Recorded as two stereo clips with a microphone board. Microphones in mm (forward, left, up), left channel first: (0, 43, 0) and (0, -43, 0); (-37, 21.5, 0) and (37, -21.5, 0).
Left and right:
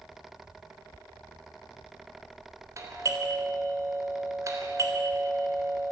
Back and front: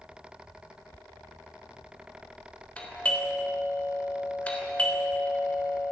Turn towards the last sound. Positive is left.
turn(degrees=-135)